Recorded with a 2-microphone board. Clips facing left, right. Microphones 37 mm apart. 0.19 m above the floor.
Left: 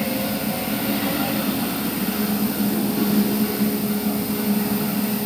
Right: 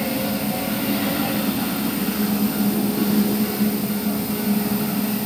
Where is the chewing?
I don't hear chewing.